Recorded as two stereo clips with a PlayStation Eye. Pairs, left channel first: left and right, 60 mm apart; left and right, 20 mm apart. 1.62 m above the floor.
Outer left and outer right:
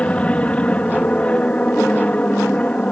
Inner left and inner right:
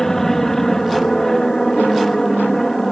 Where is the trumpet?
I don't hear a trumpet.